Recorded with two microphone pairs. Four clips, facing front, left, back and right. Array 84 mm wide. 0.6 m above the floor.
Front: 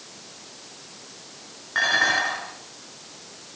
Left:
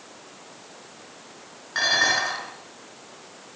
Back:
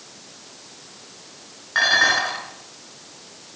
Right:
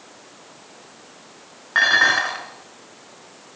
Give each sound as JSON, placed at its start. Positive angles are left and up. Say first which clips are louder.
{"t": 1.8, "sound": "dishes clattering", "louder": "right 6 dB, back 3 dB", "azimuth_deg": -105, "distance_m": 5.0}